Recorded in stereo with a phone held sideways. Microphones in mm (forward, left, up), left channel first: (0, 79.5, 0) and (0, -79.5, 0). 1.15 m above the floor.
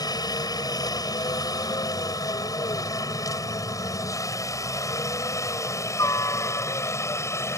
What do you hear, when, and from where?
0.0 s a helicopter: 25° left (ahead or behind); by 7.6 s 15° left (ahead or behind)